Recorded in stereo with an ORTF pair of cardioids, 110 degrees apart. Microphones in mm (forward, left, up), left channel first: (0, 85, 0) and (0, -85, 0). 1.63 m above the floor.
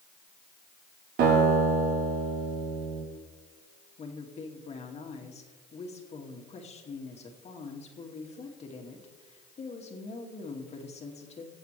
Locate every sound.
1.2 s a guitar: 70° right, 4 m
4.0 s a woman speaking: 40° left, 2.5 m